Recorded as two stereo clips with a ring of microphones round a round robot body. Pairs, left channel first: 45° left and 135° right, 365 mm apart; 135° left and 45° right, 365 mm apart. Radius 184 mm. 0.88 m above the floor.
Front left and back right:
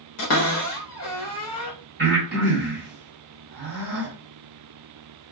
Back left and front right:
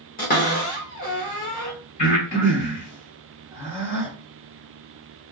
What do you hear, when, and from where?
0.2 s a cupboard door: 75° left, 1.0 m
2.0 s breathing: 160° left, 1.6 m